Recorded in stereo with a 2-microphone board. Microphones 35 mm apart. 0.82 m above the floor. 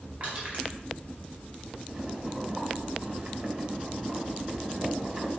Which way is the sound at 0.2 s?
35° right (ahead or behind).